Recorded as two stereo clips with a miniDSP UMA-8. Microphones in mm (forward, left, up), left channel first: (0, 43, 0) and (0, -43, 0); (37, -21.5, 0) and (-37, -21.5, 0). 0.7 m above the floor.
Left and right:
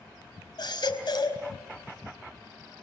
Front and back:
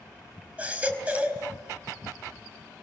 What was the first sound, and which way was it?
A baby crying, 110° left.